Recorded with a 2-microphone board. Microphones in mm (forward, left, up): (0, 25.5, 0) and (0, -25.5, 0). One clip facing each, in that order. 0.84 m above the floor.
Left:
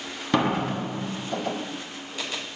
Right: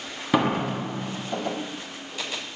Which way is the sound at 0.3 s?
5° right (ahead or behind).